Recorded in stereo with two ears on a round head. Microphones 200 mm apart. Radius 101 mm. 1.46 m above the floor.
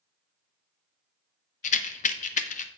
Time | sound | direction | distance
1.6 | a rattle | 35° left (ahead or behind) | 0.7 m